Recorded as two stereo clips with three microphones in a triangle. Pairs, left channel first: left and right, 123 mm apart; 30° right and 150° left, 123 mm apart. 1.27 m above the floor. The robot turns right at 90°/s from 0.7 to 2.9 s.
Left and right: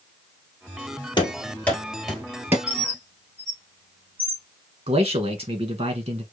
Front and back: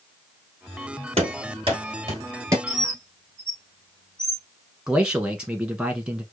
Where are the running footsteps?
130° left, 1.9 m; by 2.6 s 155° right, 1.6 m.